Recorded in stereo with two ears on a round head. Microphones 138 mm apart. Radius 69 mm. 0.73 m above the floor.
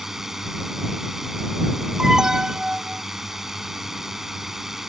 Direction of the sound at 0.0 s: Centre (ahead or behind).